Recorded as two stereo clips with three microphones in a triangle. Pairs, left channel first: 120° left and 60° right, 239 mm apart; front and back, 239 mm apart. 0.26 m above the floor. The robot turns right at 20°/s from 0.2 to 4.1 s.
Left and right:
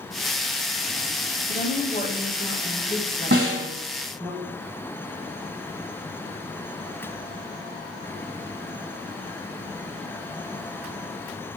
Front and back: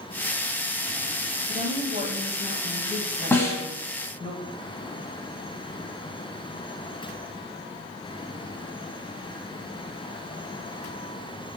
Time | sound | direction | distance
1.5 | a woman speaking | 145° left | 1.2 m
3.3 | a snare drum | 80° right | 1.3 m